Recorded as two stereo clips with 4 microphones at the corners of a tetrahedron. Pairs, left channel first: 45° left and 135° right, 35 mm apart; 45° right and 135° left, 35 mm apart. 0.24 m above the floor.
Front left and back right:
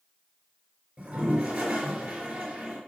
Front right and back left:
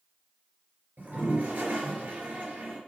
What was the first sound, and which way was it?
A toilet flushing, 175° right.